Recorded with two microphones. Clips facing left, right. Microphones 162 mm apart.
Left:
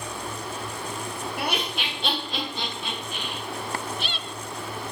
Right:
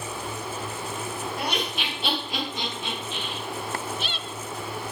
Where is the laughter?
10° left (ahead or behind), 3.5 m; by 3.4 s 30° right (ahead or behind), 4 m.